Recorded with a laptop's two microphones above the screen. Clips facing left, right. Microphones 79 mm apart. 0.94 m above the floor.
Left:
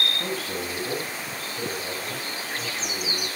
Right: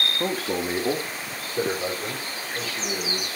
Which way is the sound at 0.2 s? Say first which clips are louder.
Right 4 dB; 45° right (ahead or behind).